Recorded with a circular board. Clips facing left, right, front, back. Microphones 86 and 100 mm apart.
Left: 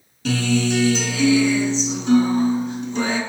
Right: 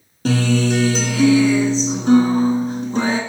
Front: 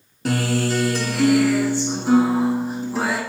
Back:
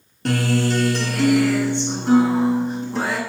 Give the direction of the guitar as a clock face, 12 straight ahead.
3 o'clock.